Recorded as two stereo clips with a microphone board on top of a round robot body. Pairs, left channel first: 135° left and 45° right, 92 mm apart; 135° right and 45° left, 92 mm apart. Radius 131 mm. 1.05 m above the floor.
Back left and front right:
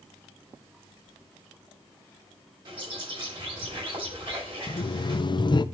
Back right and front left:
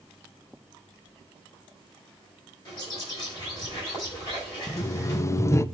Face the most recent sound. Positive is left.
turn(degrees=170)